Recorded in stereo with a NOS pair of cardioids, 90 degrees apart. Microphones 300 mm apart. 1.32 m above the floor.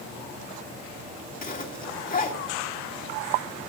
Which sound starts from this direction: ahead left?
A zipper, at 1.4 s.